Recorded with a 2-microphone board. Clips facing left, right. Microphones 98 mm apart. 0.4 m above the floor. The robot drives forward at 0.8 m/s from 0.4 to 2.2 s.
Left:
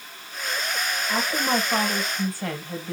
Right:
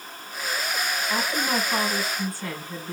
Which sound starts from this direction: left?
A woman speaking, at 1.1 s.